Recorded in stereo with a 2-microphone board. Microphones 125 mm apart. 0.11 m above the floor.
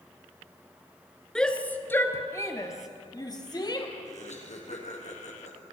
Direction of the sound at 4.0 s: 60° left (ahead or behind).